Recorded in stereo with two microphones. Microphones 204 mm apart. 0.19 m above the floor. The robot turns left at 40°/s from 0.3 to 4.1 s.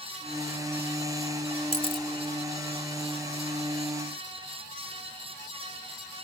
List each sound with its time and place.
1.7 s a camera shutter: 30° left (ahead or behind), 1.5 m; by 2.1 s 20° left (ahead or behind), 1.5 m